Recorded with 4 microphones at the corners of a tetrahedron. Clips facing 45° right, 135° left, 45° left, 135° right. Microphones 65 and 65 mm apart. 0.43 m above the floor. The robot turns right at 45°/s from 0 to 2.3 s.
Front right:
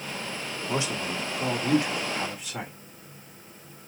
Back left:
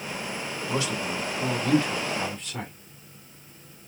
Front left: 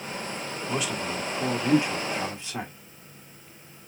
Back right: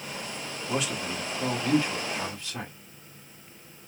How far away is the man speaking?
About 1.0 m.